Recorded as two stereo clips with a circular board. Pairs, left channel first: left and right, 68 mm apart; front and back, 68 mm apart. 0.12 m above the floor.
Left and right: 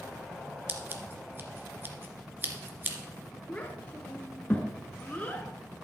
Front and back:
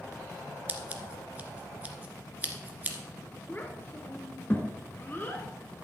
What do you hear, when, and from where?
0.7 s scissors: 125° right, 1.3 m
3.5 s a child speaking: 40° left, 1.1 m